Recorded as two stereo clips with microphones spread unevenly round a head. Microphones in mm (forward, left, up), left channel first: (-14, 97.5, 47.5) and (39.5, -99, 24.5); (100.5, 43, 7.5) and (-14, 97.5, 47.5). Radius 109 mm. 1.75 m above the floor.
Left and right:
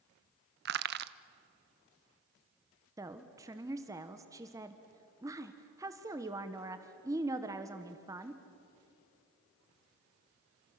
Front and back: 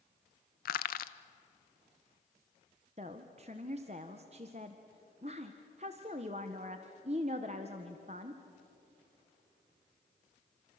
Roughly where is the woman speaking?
Behind right.